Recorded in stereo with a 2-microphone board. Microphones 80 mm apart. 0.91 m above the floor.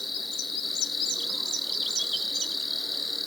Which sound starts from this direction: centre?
An insect, at 0.0 s.